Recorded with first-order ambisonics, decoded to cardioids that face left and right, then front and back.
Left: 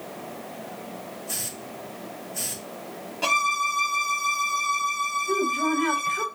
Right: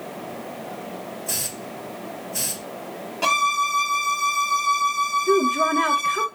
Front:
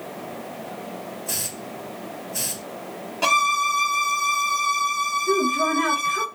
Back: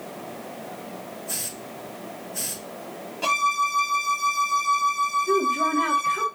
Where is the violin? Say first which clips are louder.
Right 3 dB, front 3 dB; 25° right, 1.3 m.